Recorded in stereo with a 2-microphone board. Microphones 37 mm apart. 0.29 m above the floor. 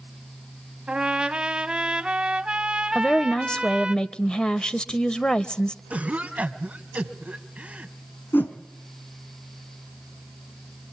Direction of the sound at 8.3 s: 65° left (ahead or behind).